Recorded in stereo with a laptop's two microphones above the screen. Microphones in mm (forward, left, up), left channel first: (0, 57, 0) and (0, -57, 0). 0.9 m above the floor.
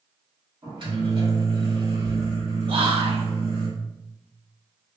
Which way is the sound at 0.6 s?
45° right (ahead or behind).